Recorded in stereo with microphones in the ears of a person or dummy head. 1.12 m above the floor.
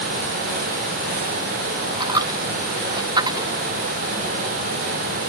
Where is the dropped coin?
25° right (ahead or behind).